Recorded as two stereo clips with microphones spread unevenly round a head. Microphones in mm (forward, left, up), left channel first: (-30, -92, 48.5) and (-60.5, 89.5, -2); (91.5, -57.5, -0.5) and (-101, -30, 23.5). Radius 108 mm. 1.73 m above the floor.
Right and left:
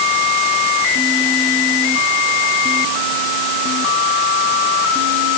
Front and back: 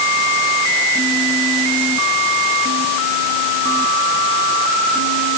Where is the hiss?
No hiss in this recording.